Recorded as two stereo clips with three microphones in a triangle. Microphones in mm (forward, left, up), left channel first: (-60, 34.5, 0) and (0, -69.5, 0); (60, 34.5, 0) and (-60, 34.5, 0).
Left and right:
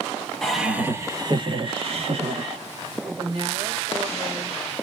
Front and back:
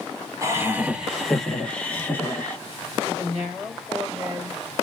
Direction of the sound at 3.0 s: 95° right.